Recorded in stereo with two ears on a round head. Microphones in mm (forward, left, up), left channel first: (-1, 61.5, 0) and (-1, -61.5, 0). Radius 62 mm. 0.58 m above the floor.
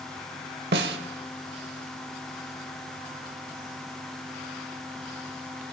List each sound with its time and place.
0.7 s a snare drum: 90° right, 0.9 m